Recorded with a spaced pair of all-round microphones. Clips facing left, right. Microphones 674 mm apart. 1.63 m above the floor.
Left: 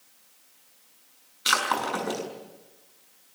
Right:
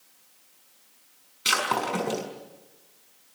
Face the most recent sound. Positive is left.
turn(degrees=-50)  # may be behind; listen again after turning